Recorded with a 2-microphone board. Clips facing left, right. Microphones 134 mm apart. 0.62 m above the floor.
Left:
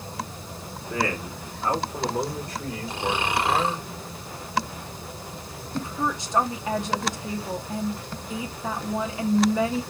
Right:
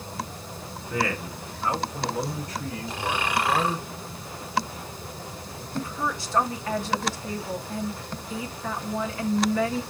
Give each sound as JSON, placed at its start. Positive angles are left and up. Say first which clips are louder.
{"t": 0.9, "sound": "a man speaking", "louder": "even", "side_deg": 30, "distance_m": 1.7}
{"t": 2.9, "sound": "snoring", "louder": "left 2 dB", "side_deg": 25, "distance_m": 1.0}
{"t": 5.7, "sound": "a woman speaking", "louder": "left 2 dB", "side_deg": 20, "distance_m": 0.7}